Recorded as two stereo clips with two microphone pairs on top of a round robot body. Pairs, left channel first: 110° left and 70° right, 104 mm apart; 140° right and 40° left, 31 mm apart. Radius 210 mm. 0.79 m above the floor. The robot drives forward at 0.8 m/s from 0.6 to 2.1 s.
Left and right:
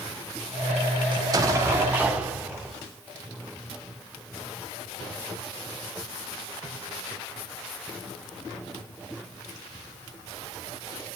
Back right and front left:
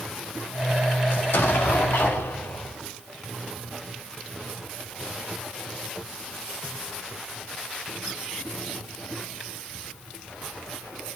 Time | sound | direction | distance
1.1 | an explosion | 115° right | 0.8 m